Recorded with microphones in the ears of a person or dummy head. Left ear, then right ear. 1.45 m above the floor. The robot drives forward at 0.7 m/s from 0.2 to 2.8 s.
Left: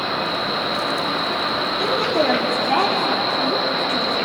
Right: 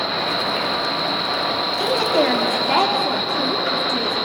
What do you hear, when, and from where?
1.8 s a woman speaking: 25° right (ahead or behind), 2.5 m; by 4.2 s 20° right (ahead or behind), 3 m